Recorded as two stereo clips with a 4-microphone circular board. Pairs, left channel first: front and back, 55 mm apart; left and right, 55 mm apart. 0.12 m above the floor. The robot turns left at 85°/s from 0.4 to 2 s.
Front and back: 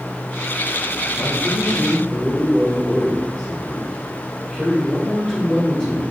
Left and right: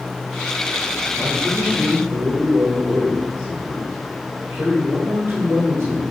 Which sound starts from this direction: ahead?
A man speaking, at 1.2 s.